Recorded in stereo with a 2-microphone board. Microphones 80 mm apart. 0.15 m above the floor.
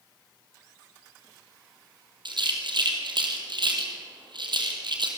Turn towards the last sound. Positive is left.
turn(degrees=-70)  # may be behind; listen again after turning